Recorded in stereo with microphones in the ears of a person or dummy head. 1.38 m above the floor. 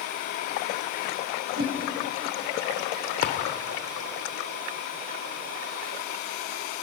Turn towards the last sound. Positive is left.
turn(degrees=45)  # may be behind; listen again after turning